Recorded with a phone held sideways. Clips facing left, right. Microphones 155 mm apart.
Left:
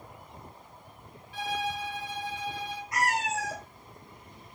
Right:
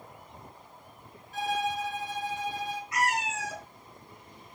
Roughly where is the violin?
Right.